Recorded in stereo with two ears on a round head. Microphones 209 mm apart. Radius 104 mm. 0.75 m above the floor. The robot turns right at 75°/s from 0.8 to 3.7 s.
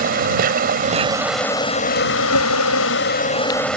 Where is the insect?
40° right; by 3.8 s 175° left.